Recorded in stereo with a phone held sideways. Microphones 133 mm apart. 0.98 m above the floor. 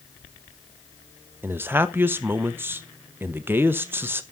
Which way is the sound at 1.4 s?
15° right (ahead or behind).